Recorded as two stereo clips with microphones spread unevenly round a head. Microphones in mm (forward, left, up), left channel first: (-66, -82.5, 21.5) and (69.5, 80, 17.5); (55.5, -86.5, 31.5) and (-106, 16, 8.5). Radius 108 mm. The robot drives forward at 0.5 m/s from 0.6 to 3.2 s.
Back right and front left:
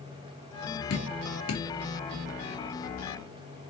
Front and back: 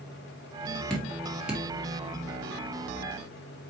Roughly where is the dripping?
Behind right.